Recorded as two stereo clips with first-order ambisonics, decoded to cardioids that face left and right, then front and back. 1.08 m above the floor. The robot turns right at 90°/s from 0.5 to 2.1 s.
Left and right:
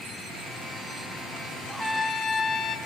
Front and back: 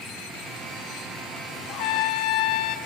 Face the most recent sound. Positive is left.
turn(degrees=25)